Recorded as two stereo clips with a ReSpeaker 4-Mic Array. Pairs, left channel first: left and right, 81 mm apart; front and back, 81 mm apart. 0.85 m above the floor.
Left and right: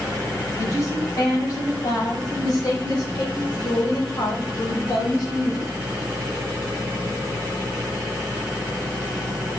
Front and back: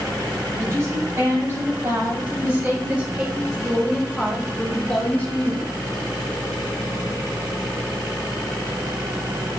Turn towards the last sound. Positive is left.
turn(degrees=50)